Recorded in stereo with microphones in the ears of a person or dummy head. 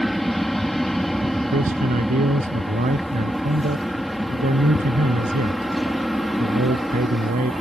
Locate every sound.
0.0 s an aircraft: centre (ahead or behind)
1.5 s a man speaking: 40° right (ahead or behind)